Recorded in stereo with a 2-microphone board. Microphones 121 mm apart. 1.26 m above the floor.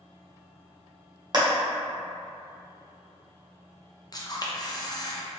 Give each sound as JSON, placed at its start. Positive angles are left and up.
{"t": 1.3, "sound": "a clap", "side_deg": -40, "distance_m": 0.8}
{"t": 4.1, "sound": "a camera shutter", "side_deg": 35, "distance_m": 0.5}